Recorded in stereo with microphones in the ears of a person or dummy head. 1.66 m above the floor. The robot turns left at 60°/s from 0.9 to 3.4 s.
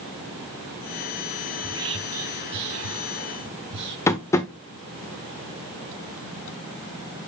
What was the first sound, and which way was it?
Whispering, 10° right (ahead or behind).